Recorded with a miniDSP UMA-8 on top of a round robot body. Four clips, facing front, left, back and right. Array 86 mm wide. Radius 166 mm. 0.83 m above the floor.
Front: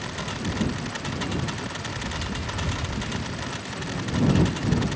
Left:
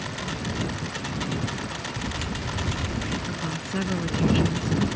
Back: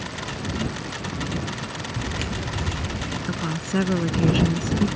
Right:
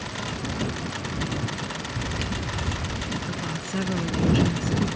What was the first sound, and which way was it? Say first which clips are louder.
Footsteps: right 2 dB, back 2 dB; 150° right.